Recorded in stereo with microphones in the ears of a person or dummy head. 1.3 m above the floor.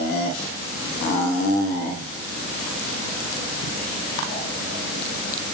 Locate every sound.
Only background noise.